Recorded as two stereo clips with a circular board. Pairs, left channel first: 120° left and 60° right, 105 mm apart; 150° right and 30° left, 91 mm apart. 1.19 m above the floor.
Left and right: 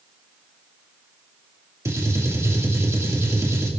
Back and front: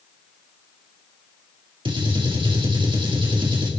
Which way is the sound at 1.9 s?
5° left.